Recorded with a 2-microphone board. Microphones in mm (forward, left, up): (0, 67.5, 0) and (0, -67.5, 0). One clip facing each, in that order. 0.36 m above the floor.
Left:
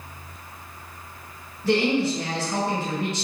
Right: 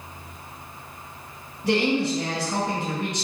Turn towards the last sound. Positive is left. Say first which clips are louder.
# left 1 dB
turn(degrees=-15)  # may be behind; listen again after turning